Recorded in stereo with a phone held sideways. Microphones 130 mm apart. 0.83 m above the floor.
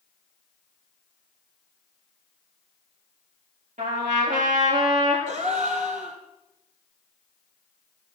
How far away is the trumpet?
About 5 m.